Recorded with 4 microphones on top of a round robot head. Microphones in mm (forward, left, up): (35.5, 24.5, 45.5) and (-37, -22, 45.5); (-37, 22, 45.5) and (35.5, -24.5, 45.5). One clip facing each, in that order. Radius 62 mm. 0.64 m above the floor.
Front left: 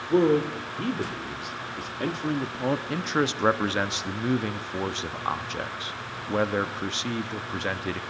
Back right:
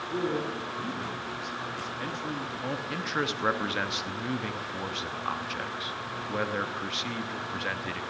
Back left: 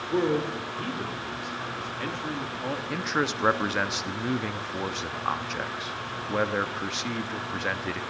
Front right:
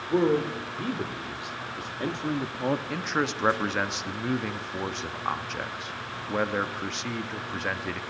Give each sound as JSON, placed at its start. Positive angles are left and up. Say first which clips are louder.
{"t": 0.1, "sound": "a man speaking", "louder": "front left 10 dB, front right 2 dB", "azimuth_deg": 50, "distance_m": 2.5}
{"t": 2.9, "sound": "a man speaking", "louder": "front left 5 dB, back left 1 dB", "azimuth_deg": 60, "distance_m": 1.1}